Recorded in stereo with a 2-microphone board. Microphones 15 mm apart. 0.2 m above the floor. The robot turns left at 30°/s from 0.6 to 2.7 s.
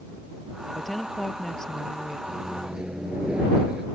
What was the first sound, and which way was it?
A woman speaking, 175° left.